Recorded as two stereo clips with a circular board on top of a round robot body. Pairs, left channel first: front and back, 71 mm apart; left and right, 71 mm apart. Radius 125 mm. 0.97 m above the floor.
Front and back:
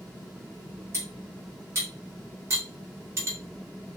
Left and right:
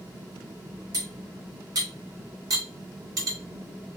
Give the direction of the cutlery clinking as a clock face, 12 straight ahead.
4 o'clock.